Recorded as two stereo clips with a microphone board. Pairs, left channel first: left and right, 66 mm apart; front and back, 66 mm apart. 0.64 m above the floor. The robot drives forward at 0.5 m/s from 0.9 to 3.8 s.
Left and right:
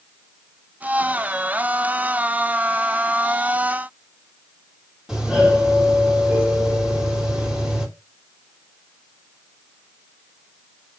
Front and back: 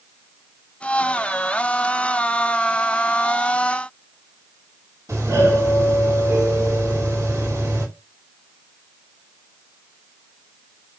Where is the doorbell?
170° right, 2.5 m.